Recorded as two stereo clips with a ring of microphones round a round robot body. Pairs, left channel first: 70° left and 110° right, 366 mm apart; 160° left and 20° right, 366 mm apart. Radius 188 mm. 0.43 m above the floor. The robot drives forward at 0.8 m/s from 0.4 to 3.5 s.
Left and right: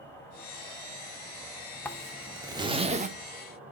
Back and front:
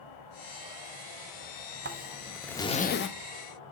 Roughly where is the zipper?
Ahead.